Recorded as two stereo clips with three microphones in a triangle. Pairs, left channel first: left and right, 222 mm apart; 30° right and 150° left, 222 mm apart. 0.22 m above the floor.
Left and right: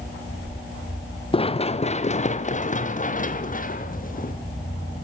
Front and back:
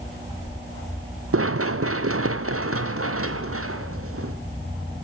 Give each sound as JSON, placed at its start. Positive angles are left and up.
{"t": 1.3, "sound": "running footsteps", "azimuth_deg": 155, "distance_m": 1.1}